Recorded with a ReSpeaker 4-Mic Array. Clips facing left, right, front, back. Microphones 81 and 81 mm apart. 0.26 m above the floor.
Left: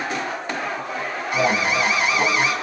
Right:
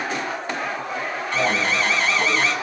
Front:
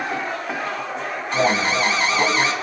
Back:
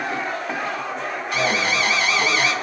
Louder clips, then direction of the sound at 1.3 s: Left 2 dB, front 3 dB; 20° left.